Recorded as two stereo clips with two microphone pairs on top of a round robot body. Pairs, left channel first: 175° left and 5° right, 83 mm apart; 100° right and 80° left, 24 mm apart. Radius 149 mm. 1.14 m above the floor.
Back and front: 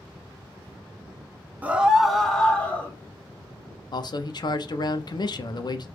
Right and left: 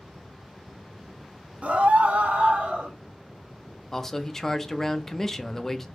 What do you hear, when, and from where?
1.6 s a scream: 60° left, 0.7 m; by 2.9 s 100° left, 1.1 m
3.9 s a man speaking: 165° right, 0.6 m